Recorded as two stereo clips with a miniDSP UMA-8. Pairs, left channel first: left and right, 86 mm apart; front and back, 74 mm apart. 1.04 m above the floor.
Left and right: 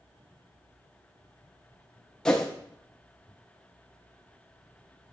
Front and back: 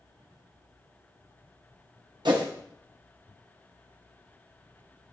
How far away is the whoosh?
About 1.0 m.